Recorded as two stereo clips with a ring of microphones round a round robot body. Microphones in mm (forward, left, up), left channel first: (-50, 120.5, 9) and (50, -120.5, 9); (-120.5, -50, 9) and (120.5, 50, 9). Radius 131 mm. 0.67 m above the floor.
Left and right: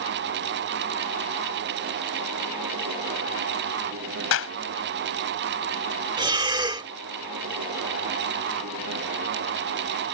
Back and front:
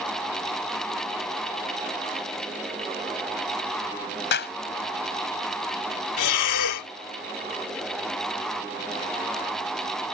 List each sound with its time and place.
4.3 s a clap: 150° left
6.2 s breathing: 140° right